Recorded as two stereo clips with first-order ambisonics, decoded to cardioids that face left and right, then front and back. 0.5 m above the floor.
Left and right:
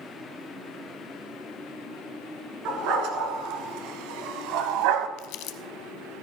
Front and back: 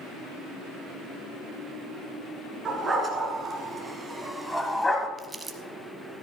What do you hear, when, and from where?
2.6 s a dog barking: 110° right, 2 m; by 5.1 s 75° right, 0.9 m
5.2 s crumpling: 100° left, 0.7 m